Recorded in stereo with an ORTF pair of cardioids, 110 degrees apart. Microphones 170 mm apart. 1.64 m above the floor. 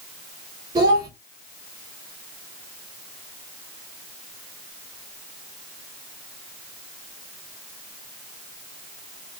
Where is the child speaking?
30° right, 1.5 m.